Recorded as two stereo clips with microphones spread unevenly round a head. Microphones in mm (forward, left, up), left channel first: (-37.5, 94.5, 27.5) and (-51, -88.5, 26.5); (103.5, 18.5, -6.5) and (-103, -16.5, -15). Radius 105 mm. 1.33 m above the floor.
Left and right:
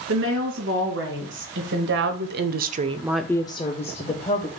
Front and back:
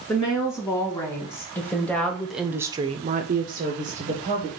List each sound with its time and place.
0.1 s a woman speaking: 65° right, 2.5 m; by 4.5 s 130° left, 1.3 m